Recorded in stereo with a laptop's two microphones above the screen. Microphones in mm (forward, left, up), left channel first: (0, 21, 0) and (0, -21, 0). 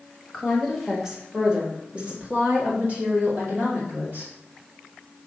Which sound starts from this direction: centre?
A woman speaking, at 0.3 s.